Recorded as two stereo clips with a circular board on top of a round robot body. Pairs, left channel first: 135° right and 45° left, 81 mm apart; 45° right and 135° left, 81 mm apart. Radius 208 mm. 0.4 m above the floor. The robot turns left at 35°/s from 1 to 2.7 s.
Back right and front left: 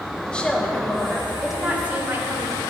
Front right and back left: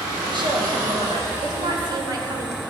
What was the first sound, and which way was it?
A woman speaking, 145° left.